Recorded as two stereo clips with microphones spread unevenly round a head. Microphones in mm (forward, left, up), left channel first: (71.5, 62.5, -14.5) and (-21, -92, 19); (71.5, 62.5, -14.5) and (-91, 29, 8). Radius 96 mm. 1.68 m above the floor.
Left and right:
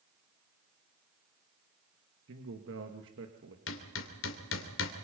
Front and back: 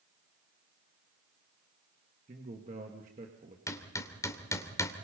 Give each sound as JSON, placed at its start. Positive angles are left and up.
{"t": 2.3, "sound": "a man speaking", "azimuth_deg": -115, "distance_m": 2.0}
{"t": 3.7, "sound": "hammering", "azimuth_deg": 85, "distance_m": 2.5}